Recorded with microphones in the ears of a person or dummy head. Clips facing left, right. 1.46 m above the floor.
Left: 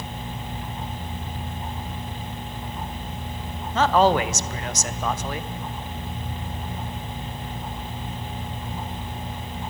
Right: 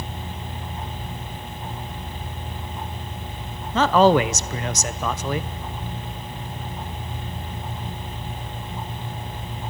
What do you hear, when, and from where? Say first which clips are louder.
3.7 s a man speaking: right 3 dB; 65° right (ahead or behind), 0.6 m